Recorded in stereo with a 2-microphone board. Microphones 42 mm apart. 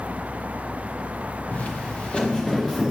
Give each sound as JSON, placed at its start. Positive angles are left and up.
{"t": 1.5, "sound": "footsteps", "side_deg": 45, "distance_m": 1.1}